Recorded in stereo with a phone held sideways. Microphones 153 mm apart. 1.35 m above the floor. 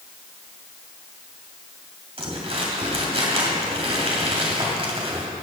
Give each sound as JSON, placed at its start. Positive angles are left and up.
{"t": 2.2, "sound": "crumpling", "side_deg": -40, "distance_m": 3.0}